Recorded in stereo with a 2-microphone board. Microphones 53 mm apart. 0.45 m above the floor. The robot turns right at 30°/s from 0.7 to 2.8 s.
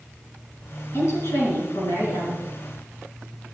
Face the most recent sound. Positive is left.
turn(degrees=105)